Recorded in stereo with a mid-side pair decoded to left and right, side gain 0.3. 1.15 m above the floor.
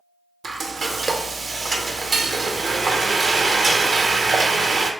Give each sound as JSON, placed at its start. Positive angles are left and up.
{"t": 0.4, "sound": "frying", "azimuth_deg": -60, "distance_m": 0.6}